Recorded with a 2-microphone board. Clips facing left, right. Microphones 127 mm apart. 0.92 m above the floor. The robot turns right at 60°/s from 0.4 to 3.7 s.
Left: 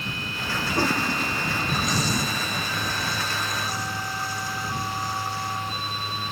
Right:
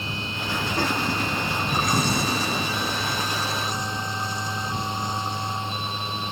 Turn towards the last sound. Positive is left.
turn(degrees=-20)